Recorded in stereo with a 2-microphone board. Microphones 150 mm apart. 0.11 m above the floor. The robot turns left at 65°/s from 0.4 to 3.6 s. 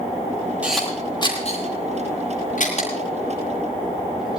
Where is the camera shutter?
10° right (ahead or behind), 10 m; by 4.4 s 5° right (ahead or behind), 10 m.